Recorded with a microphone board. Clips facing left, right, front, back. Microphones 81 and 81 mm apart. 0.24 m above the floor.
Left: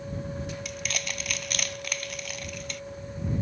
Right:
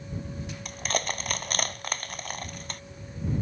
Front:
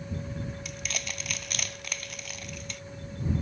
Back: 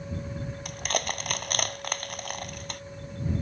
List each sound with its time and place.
0.7 s crushing: 140° right